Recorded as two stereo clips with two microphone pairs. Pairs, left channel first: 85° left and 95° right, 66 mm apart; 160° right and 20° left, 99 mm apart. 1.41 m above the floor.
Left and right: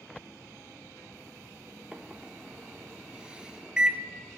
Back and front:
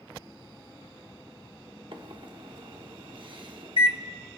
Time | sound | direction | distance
1.9 | a microwave | 15° right | 0.8 m